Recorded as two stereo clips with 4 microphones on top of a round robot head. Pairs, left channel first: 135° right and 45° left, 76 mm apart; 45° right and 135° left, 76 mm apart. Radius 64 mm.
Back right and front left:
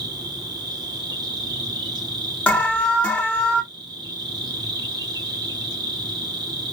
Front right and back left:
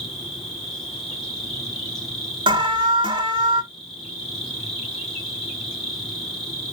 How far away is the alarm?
About 1.0 m.